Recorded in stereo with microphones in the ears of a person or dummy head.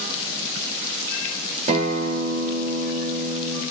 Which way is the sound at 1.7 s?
30° right (ahead or behind).